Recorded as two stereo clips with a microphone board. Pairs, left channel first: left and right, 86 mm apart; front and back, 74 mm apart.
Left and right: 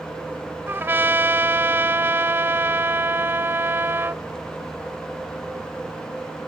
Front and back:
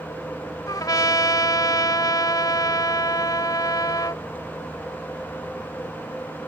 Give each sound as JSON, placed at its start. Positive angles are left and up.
{"t": 0.7, "sound": "a trumpet", "azimuth_deg": -30}